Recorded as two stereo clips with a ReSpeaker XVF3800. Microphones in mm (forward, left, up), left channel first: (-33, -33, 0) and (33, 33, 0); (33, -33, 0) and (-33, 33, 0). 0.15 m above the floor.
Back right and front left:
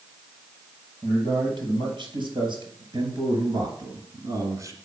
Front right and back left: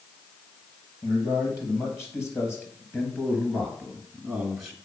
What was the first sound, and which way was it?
A man speaking, 15° left.